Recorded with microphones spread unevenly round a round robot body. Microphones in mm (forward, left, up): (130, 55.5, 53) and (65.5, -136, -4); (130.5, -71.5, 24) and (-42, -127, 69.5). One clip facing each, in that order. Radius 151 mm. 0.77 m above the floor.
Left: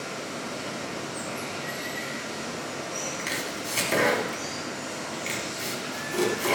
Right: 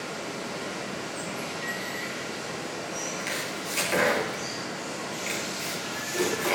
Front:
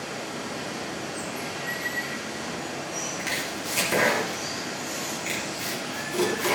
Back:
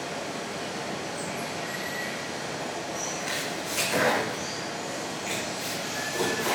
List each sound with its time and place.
0.0 s running water: 30° left, 6.5 m
3.2 s chopping: 35° left, 4 m